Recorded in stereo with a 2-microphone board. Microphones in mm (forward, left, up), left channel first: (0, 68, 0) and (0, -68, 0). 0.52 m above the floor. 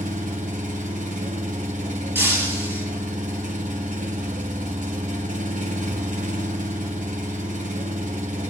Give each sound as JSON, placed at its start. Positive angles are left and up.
{"t": 0.0, "sound": "an engine running", "side_deg": -70, "distance_m": 1.5}
{"t": 2.1, "sound": "breaking glass", "side_deg": -15, "distance_m": 5.0}